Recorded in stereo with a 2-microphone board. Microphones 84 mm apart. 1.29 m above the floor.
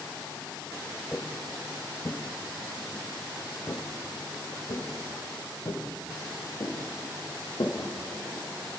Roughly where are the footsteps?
Centre.